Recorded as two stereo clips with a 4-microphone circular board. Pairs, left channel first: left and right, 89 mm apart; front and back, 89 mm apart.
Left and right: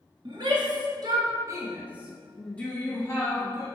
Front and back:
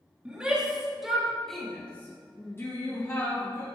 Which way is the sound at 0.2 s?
105° right.